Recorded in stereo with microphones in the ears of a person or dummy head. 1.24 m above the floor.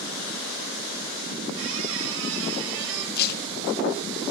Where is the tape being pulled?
60° left (ahead or behind), 1.3 m.